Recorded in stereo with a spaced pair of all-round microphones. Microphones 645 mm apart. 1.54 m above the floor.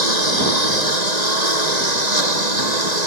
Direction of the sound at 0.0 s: 75° right (ahead or behind).